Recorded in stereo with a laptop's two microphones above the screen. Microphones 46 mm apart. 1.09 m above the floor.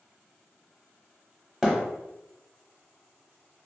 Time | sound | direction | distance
1.6 | a thud | 5° right (ahead or behind) | 1.0 m